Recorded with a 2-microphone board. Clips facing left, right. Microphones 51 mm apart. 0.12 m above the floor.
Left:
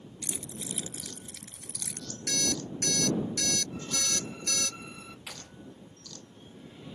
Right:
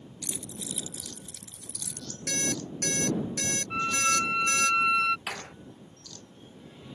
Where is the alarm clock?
30° right (ahead or behind).